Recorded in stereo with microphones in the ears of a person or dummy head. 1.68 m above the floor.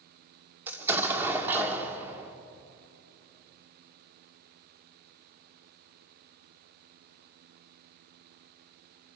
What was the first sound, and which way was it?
An explosion, 10° right (ahead or behind).